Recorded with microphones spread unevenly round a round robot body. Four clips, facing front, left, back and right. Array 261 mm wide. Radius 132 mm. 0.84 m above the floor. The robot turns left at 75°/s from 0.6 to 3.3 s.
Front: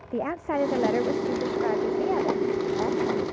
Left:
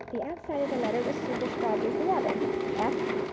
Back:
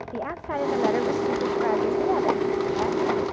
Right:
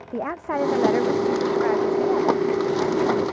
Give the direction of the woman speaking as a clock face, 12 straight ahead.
3 o'clock.